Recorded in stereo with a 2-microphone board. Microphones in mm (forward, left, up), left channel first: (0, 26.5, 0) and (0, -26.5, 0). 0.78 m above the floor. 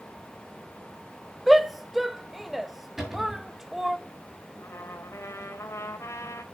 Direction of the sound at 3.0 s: 10° right (ahead or behind).